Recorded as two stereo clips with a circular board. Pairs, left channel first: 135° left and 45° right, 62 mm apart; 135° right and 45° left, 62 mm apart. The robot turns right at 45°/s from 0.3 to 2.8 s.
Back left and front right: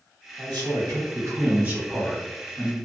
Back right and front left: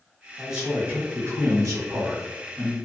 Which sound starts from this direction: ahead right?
A man speaking, at 0.4 s.